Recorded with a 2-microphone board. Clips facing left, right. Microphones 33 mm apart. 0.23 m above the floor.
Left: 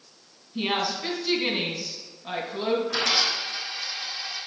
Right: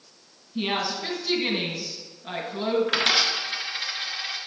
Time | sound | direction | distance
0.6 | a woman speaking | centre (ahead or behind) | 2.0 m
2.9 | a dropped coin | 60° right (ahead or behind) | 1.8 m